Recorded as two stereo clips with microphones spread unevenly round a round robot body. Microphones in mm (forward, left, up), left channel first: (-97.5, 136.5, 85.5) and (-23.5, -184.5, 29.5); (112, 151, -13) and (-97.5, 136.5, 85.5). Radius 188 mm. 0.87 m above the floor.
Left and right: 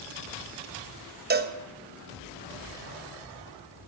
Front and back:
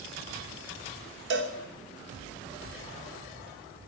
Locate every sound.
1.3 s a cowbell: 120° right, 1.3 m